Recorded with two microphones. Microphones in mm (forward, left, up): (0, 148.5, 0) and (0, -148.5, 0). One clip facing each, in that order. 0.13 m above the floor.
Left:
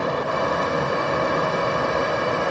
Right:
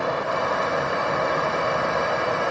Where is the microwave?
No microwave in this recording.